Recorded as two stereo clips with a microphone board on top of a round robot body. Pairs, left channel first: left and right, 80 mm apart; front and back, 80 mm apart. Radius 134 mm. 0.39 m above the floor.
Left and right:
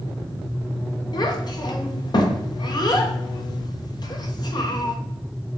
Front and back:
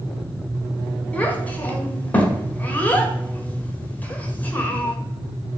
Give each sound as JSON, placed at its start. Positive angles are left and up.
{"t": 1.1, "sound": "a child speaking", "azimuth_deg": 70, "distance_m": 1.7}